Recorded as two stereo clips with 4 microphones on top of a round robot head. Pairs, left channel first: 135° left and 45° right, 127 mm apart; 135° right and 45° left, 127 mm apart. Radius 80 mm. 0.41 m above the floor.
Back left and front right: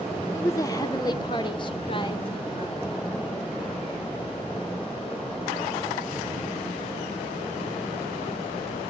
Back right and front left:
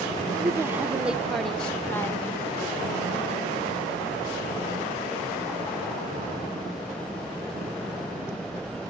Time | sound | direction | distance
0.3 | a woman speaking | 85° left | 1.4 m